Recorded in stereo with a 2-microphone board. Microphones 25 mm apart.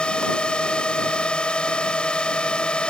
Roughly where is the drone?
Left.